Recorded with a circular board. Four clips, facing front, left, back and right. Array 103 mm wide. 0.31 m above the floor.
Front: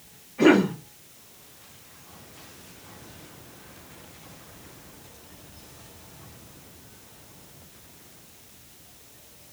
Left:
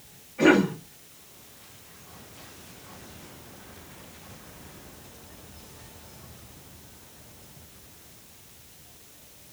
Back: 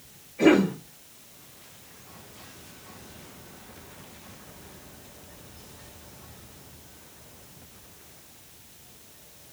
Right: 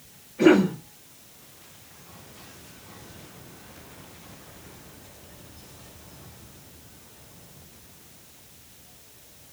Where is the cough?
30° left, 3 m.